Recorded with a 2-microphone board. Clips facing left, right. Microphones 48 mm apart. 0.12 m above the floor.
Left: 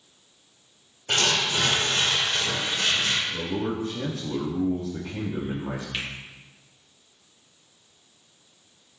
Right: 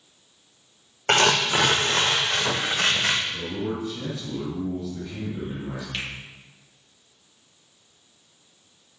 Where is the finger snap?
5° left (ahead or behind), 4 m.